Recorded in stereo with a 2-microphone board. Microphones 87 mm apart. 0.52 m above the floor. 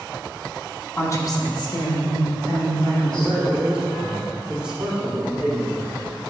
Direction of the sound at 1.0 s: 25° left (ahead or behind).